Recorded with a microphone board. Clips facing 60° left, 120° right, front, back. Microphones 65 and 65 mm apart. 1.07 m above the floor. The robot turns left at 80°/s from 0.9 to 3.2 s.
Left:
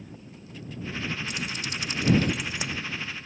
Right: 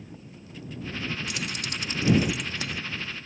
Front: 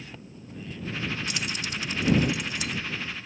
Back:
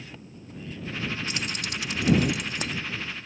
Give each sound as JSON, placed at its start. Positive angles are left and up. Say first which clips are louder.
{"t": 1.3, "sound": "keys jangling", "louder": "even, even", "azimuth_deg": -120}